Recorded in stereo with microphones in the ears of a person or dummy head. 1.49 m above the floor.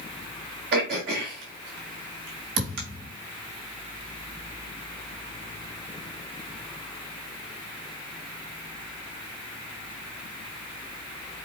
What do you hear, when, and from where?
0.7 s throat clearing: 60° right (ahead or behind), 2.5 m
2.6 s a thud: 75° right (ahead or behind), 3.5 m